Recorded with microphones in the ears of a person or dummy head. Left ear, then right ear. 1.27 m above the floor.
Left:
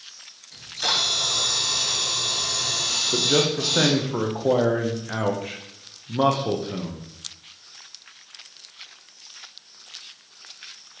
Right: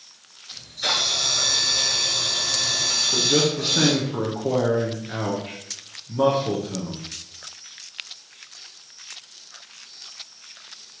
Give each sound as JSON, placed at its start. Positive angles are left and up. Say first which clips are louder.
{"t": 0.5, "sound": "a camera shutter", "louder": "even", "side_deg": 65, "distance_m": 3.0}
{"t": 3.1, "sound": "a man speaking", "louder": "right 1 dB", "side_deg": 25, "distance_m": 0.7}